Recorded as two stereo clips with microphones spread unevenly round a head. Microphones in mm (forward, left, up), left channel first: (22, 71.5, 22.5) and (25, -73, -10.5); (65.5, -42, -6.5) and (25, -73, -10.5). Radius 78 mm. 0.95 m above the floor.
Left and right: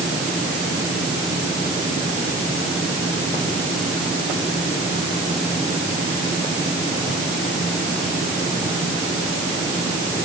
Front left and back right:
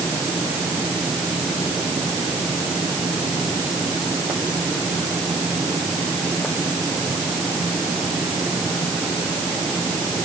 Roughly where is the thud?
I don't hear a thud.